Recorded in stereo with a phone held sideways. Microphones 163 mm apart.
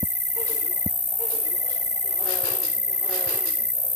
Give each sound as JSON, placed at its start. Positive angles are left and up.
{"t": 0.0, "sound": "an insect", "side_deg": 55}